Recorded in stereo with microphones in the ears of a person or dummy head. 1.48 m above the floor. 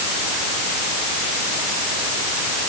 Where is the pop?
No pop in this recording.